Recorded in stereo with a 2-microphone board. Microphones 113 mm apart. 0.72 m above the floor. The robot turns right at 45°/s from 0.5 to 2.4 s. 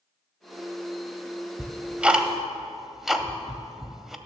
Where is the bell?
I don't hear a bell.